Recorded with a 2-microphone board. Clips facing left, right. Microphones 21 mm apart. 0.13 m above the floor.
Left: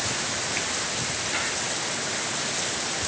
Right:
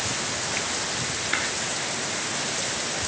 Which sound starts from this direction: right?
Tapping, at 1.3 s.